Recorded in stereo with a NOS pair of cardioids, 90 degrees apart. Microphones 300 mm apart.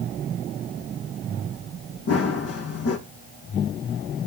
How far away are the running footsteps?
About 3.5 m.